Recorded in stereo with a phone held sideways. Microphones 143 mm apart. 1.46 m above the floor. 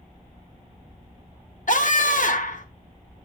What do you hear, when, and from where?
1.7 s a scream: 65° left (ahead or behind), 1.9 m